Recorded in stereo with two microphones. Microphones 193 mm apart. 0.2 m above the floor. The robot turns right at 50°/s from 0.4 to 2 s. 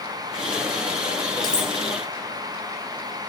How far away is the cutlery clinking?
About 2 m.